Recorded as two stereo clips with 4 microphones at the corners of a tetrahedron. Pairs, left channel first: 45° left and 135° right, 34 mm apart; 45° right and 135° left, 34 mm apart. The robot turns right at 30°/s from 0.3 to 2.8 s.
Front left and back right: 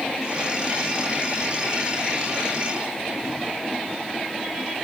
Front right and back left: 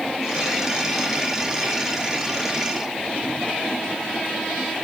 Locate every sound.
Only background noise.